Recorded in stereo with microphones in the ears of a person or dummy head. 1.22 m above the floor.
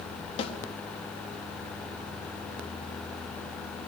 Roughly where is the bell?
No bell in this recording.